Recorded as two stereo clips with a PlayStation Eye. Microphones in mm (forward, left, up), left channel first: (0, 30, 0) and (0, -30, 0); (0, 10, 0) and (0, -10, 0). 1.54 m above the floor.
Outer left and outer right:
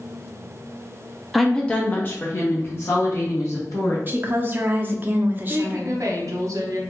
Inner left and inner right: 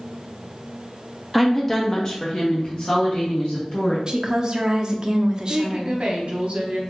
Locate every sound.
1.3 s a woman speaking: centre (ahead or behind), 0.6 m; by 4.0 s 50° left (ahead or behind), 2 m
4.1 s a woman speaking: 30° right (ahead or behind), 0.6 m
5.5 s a woman speaking: 60° right (ahead or behind), 0.8 m